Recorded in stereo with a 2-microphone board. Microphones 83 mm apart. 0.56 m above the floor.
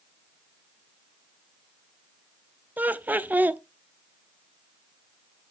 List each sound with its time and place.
2.8 s laughter: 20° right (ahead or behind), 0.7 m